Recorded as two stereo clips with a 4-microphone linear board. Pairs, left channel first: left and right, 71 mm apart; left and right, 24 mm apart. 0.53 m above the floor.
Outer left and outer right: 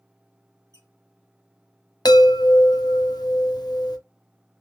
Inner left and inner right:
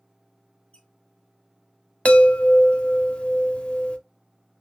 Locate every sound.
0.7 s a squeak: 70° left (ahead or behind), 1.8 m
2.0 s a chime: 80° left, 0.6 m